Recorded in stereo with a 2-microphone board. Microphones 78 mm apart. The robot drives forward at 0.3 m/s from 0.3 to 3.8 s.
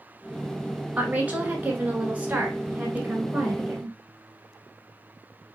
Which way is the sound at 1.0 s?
20° right (ahead or behind).